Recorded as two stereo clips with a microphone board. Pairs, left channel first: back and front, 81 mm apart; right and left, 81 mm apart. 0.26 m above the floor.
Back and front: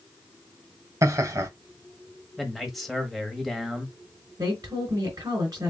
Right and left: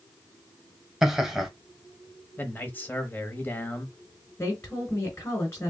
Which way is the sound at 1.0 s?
10° left.